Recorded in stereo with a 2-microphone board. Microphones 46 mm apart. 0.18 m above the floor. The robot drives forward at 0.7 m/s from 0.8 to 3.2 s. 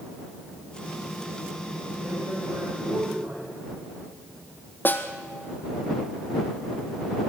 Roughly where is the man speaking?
Right.